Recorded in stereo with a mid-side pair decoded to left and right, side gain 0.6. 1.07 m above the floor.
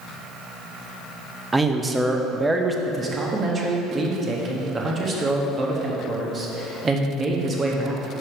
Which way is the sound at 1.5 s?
15° right.